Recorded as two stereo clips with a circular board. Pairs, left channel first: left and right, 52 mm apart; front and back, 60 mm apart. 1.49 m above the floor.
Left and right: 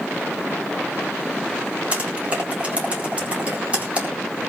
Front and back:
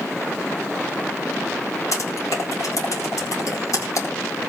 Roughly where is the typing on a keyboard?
Ahead right.